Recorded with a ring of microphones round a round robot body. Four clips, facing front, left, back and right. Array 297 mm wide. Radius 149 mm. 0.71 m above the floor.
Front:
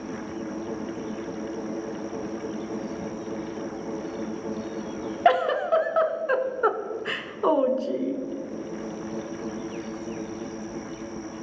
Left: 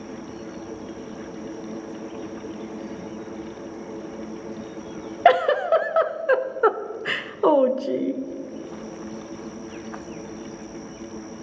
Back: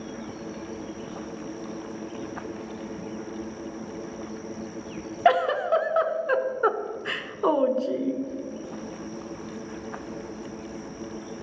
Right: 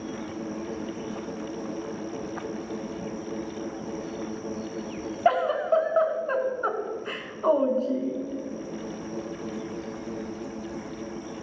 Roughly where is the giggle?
Left.